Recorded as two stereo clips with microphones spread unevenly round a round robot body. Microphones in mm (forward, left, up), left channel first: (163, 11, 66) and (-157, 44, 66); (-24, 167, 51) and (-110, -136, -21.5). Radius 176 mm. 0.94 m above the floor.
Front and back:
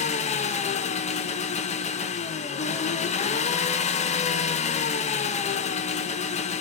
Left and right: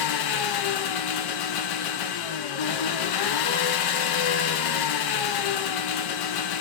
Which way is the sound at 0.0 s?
60° left.